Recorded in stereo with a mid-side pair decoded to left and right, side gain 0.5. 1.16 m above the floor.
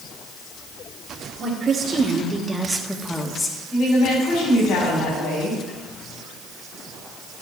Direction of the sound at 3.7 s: 60° left.